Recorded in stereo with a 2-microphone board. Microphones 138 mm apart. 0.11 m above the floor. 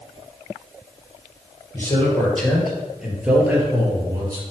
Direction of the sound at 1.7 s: 15° left (ahead or behind).